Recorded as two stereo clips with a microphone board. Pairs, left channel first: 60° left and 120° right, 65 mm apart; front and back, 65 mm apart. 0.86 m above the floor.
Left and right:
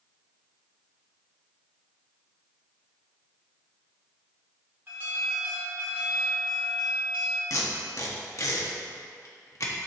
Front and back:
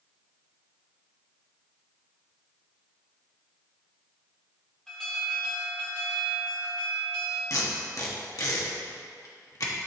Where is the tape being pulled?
25° left, 1.2 m.